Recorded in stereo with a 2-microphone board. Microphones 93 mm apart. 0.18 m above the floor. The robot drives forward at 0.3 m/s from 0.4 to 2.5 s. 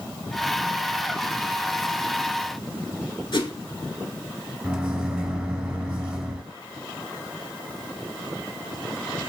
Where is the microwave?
10° right (ahead or behind), 0.9 m.